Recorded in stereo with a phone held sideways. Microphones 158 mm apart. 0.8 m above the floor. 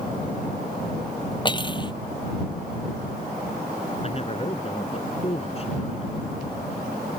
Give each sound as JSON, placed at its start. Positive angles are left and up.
{"t": 1.4, "sound": "cutlery clinking", "side_deg": 30}
{"t": 4.0, "sound": "a man speaking", "side_deg": 40}